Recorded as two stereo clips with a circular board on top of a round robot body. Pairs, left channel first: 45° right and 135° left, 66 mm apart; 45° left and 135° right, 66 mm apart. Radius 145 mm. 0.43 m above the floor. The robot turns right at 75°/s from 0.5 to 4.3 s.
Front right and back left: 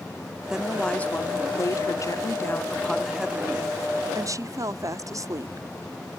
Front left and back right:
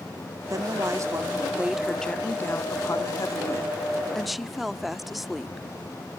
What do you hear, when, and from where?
0.5 s a woman speaking: 150° right; by 5.7 s 135° left